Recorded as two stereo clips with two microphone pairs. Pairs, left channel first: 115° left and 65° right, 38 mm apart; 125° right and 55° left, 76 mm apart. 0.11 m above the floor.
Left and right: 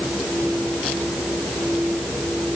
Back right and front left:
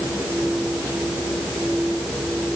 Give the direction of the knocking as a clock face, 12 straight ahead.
I don't hear knocking.